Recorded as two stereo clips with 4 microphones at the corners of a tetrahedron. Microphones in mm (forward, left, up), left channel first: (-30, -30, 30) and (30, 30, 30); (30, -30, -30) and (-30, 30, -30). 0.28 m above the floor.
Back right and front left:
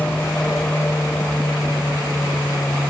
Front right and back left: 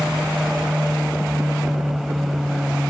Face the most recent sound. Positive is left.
turn(degrees=-150)